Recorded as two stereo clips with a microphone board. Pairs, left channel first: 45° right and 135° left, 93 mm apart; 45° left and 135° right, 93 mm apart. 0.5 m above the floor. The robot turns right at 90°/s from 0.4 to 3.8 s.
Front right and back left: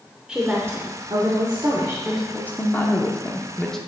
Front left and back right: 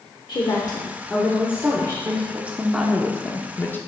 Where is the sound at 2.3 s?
100° right, 0.7 m; by 3.8 s 35° left, 0.7 m.